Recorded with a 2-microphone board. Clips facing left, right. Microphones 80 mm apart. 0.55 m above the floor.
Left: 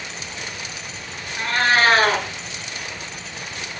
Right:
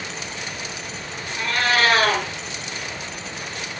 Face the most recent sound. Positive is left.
turn(degrees=40)  # may be behind; listen again after turning